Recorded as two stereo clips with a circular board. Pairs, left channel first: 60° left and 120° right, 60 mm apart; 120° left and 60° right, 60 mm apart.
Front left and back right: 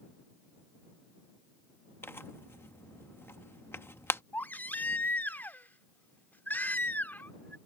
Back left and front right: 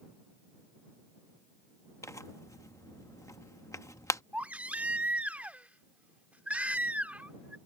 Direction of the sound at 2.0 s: 105° left.